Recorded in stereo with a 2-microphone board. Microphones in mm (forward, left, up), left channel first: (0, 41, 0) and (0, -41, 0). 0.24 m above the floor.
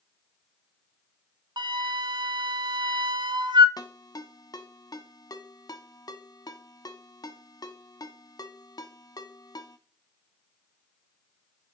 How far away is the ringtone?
About 1.3 m.